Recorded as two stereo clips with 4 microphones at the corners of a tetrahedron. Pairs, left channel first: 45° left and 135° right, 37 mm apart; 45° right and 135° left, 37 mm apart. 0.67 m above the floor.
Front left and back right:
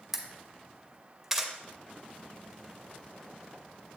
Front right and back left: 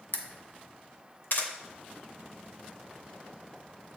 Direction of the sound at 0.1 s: 55° right.